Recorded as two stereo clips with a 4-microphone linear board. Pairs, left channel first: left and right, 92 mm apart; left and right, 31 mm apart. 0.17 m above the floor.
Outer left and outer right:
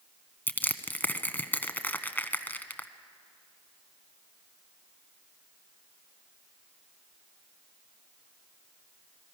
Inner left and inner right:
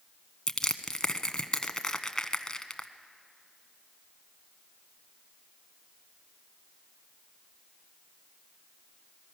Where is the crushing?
20° left (ahead or behind), 1.0 m.